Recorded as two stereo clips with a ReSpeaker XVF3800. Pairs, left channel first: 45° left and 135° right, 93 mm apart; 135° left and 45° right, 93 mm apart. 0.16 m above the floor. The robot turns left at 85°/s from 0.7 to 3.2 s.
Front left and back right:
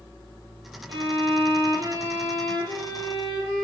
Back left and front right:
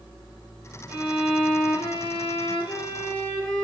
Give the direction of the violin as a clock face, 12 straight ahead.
4 o'clock.